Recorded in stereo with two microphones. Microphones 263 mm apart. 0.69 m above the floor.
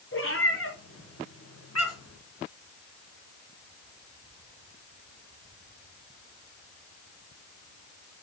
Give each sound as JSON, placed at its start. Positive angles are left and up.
{"t": 0.1, "sound": "a cat meowing", "side_deg": 50, "distance_m": 4.0}